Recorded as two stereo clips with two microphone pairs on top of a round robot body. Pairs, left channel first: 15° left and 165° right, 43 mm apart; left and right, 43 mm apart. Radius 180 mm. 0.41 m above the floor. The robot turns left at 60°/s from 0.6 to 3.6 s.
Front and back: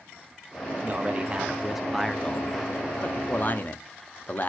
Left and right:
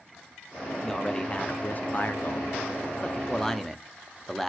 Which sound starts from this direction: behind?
A man speaking, at 0.8 s.